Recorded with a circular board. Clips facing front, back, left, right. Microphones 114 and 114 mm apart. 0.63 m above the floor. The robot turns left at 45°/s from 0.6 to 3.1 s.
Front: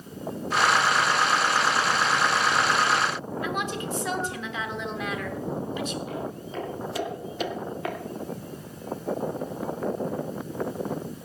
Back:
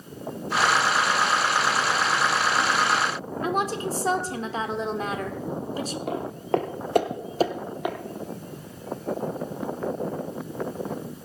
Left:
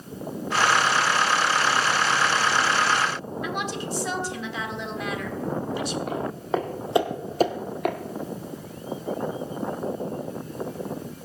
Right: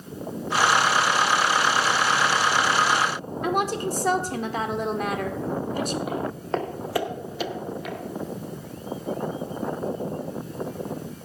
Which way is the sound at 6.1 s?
175° right.